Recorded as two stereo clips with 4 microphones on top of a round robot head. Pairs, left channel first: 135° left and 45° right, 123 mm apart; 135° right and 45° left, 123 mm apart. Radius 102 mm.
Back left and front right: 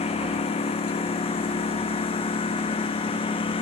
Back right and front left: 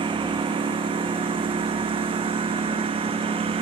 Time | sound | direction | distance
0.0 | a lawn mower | 95° left | ?